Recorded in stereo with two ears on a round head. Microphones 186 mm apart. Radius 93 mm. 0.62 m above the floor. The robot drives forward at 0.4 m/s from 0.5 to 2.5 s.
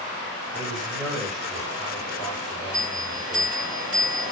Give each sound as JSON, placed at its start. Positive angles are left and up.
{"t": 0.5, "sound": "a man speaking", "side_deg": 0, "distance_m": 1.8}
{"t": 2.7, "sound": "a bell", "side_deg": -5, "distance_m": 2.0}